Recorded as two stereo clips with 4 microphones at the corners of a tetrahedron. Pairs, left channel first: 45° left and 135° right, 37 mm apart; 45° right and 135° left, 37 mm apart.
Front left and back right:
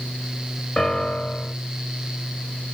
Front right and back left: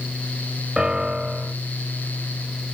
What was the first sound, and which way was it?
A piano, 85° left.